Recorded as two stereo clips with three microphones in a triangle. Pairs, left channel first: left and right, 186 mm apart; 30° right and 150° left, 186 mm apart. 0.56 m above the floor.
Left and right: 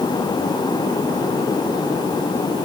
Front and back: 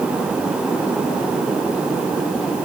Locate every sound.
Only background noise.